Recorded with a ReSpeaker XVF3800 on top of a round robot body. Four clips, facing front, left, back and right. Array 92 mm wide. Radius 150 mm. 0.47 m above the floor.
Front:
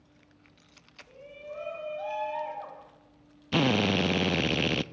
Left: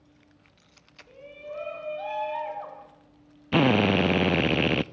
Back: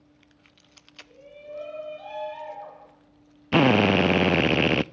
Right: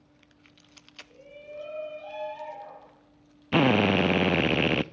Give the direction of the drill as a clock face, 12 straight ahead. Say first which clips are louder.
Left 1 dB, back 7 dB; 6 o'clock.